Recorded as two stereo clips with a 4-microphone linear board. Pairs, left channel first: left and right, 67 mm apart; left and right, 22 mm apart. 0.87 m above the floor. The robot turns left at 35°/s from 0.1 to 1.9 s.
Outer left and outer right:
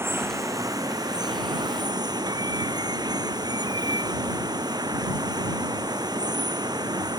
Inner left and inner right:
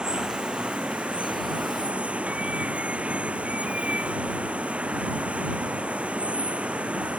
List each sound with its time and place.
0.0 s running water: 40° right; by 7.2 s 100° right